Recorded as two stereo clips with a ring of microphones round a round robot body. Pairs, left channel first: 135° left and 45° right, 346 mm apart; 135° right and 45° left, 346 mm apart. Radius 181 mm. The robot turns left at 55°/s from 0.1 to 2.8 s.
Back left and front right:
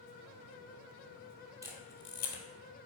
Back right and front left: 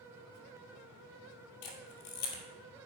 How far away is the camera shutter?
About 2.5 m.